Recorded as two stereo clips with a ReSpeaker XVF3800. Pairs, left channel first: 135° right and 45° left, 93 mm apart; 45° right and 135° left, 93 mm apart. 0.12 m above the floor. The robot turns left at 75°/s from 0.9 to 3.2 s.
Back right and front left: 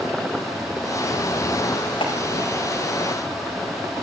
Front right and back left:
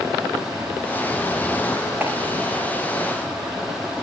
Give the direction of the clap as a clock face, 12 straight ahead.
5 o'clock.